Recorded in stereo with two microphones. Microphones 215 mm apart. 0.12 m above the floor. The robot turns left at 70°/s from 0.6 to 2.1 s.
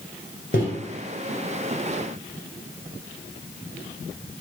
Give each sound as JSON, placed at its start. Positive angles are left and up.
{"t": 0.5, "sound": "a microwave", "side_deg": 45, "distance_m": 1.5}